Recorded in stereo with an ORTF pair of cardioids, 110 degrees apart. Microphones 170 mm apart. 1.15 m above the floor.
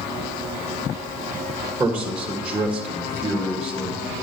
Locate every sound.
1.8 s a man speaking: 5° right, 1.3 m